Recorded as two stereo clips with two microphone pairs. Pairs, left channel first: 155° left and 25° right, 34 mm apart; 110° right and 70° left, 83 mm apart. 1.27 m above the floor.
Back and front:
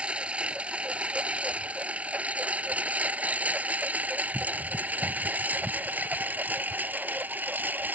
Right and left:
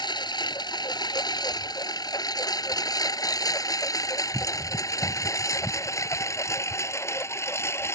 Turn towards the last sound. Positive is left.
turn(degrees=-45)